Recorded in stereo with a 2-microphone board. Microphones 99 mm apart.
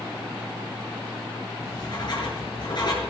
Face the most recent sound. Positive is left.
turn(degrees=50)  # may be behind; listen again after turning